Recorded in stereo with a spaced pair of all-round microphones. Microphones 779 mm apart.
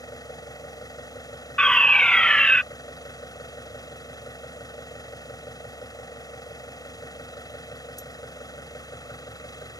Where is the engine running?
5° left (ahead or behind).